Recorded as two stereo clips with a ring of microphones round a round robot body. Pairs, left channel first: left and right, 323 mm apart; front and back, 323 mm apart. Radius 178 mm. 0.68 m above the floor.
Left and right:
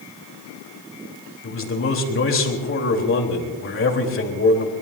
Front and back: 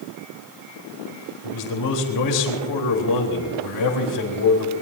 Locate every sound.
1.4 s a man speaking: 40° left, 3.5 m